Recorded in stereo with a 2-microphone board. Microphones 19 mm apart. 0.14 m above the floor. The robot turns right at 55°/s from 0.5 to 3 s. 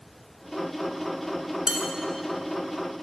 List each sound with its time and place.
1.7 s dishes clattering: 40° right (ahead or behind), 1.2 m